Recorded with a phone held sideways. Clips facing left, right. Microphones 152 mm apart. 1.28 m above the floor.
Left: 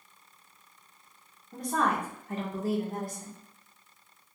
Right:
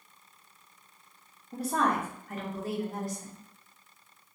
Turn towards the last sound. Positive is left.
turn(degrees=60)  # may be behind; listen again after turning